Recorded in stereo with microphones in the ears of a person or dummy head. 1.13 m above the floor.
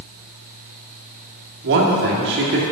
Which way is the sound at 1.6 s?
65° right (ahead or behind).